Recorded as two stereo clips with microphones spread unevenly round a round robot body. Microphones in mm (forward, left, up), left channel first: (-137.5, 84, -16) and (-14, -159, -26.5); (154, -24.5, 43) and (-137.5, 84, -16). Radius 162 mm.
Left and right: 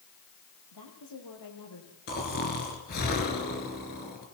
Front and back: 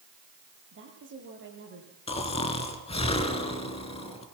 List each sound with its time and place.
0.7 s a woman speaking: 105° left, 8 m
2.1 s snoring: 55° left, 3.5 m